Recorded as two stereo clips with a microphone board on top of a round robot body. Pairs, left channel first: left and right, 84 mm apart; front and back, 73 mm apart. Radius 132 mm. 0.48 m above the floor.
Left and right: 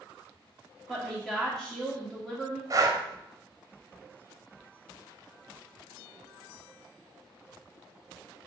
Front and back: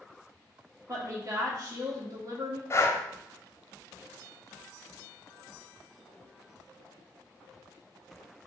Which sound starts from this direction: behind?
A woman speaking, at 0.9 s.